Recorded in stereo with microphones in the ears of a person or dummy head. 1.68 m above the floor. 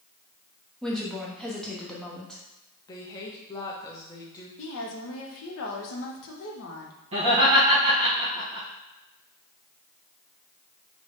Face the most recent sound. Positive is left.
turn(degrees=-35)  # may be behind; listen again after turning